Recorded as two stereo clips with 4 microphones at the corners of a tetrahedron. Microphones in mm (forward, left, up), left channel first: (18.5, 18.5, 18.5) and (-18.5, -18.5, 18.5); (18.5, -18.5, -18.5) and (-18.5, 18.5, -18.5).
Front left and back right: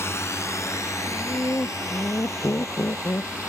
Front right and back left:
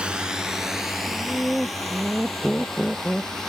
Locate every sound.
0.0 s a drone: 65° left; by 3.5 s 40° left
1.1 s laughter: 30° left